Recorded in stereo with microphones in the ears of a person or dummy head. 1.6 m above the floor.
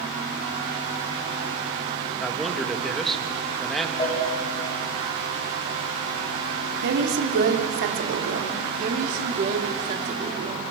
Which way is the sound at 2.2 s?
5° left (ahead or behind).